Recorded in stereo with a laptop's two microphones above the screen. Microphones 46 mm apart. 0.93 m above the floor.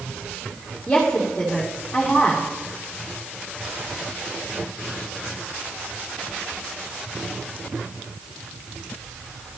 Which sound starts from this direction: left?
A woman speaking, at 0.9 s.